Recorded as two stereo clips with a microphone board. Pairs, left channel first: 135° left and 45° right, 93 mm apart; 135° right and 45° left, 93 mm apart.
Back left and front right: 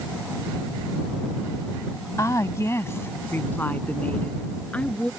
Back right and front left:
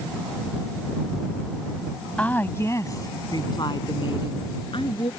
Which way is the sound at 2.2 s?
155° left.